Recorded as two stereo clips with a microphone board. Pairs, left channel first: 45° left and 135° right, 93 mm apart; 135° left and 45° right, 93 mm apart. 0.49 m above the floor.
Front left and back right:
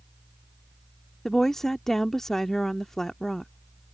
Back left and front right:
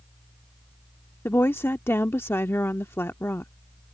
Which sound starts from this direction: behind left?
A woman speaking, at 1.2 s.